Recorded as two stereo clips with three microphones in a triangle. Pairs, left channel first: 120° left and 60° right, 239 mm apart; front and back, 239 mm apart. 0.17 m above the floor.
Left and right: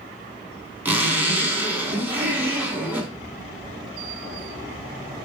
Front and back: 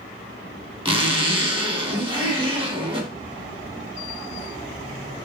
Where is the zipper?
135° right, 0.7 m.